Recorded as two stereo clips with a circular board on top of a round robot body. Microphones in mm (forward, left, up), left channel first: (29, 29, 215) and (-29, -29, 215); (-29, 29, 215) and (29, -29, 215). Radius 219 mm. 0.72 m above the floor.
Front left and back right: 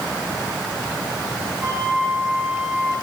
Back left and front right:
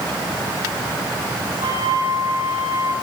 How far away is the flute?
About 4.5 m.